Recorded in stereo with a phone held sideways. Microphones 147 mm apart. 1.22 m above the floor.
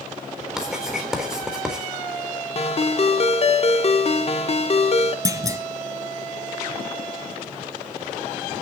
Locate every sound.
0.6 s writing: 5° right (ahead or behind), 3.5 m
2.5 s a ringtone: 45° left (ahead or behind), 1.1 m
5.2 s a clunk: 20° right (ahead or behind), 1.5 m